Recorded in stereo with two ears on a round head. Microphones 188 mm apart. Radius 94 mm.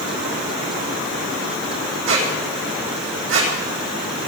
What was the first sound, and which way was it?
A squeak, 65° right (ahead or behind).